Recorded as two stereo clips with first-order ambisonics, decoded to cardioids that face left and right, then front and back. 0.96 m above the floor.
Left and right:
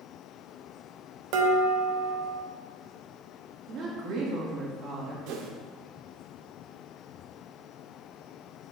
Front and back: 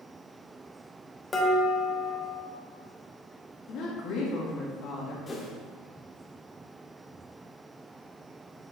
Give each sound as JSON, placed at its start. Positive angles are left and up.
{"t": 1.3, "sound": "dishes clattering", "azimuth_deg": -75, "distance_m": 1.1}
{"t": 3.7, "sound": "a woman speaking", "azimuth_deg": -40, "distance_m": 1.8}
{"t": 5.3, "sound": "a whoosh", "azimuth_deg": -70, "distance_m": 1.0}